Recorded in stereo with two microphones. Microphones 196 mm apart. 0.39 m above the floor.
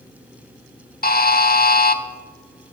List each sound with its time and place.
1.0 s a buzzer: 50° left (ahead or behind), 0.5 m